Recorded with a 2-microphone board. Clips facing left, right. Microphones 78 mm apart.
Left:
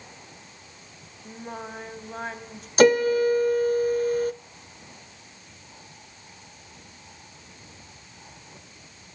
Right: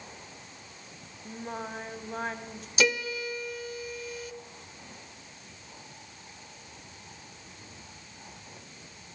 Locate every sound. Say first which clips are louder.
1.2 s singing: even; centre (ahead or behind), 2 m
2.8 s a piano: left 12 dB; 50° left (ahead or behind), 0.6 m